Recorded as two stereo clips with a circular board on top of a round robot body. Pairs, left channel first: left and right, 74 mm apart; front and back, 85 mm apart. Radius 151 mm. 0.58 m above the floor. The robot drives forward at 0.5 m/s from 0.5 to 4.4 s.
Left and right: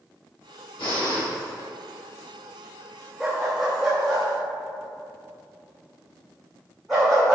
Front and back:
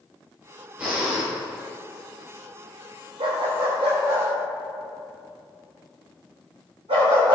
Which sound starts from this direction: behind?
A dog barking, at 3.2 s.